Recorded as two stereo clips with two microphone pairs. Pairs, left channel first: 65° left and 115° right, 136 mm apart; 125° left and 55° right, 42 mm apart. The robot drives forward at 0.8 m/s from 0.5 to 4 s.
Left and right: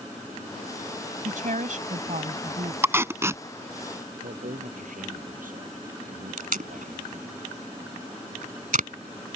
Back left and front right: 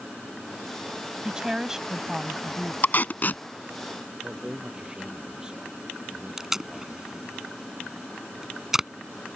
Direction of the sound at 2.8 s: 170° left.